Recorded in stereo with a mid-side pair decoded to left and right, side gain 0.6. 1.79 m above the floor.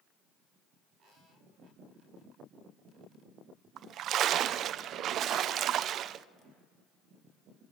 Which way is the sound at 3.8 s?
55° right.